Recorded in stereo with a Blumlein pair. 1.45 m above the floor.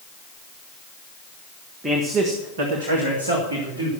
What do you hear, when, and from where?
1.8 s a man speaking: 15° right, 1.4 m; by 3.9 s 80° right, 3 m